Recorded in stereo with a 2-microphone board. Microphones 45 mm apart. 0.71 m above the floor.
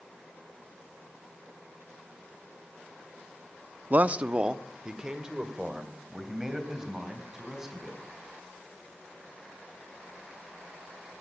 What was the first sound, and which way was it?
A man speaking, 35° right (ahead or behind).